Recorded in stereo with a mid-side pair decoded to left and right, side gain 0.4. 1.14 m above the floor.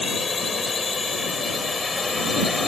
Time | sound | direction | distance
0.0 | a drone | 35° left | ?